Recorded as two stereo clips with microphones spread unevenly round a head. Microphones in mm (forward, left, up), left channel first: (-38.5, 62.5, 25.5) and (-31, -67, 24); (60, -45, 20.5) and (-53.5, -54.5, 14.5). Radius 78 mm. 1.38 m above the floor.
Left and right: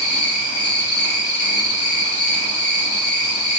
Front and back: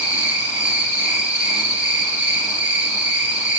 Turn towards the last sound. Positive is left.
turn(degrees=120)